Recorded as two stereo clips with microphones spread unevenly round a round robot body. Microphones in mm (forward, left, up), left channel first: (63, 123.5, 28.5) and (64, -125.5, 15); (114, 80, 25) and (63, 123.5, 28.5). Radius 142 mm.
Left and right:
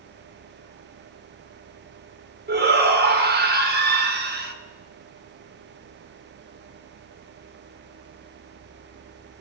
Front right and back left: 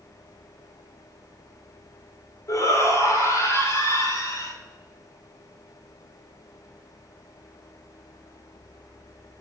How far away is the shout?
About 2 m.